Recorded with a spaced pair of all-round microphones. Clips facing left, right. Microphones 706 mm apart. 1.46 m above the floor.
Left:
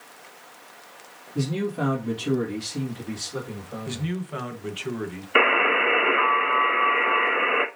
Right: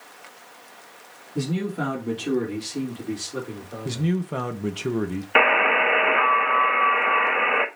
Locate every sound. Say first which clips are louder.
1.4 s a man speaking: even; centre (ahead or behind), 3 m; by 4.1 s 35° left (ahead or behind), 3.5 m
3.9 s a man speaking: right 7 dB; 65° right (ahead or behind), 1.1 m
5.3 s a buzzer: left 1 dB; 25° right (ahead or behind), 0.8 m